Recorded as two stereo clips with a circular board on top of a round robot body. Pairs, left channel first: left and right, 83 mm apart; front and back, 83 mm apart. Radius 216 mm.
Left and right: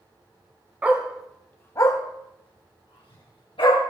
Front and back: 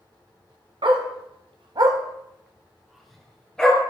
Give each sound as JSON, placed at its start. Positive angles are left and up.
{"t": 0.8, "sound": "a dog barking", "azimuth_deg": -160, "distance_m": 1.6}